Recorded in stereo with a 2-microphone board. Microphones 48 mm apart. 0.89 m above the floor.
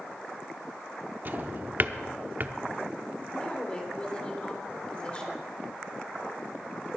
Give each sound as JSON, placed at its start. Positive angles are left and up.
{"t": 1.2, "sound": "a drawer", "side_deg": -40, "distance_m": 0.7}
{"t": 3.3, "sound": "a woman speaking", "side_deg": 20, "distance_m": 3.0}